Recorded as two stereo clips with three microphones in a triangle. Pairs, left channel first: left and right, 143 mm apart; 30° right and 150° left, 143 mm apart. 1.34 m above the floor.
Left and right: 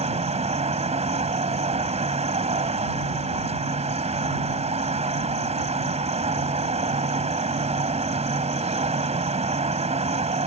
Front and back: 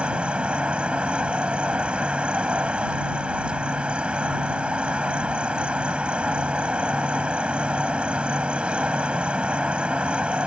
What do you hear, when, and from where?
0.0 s an insect: 130° right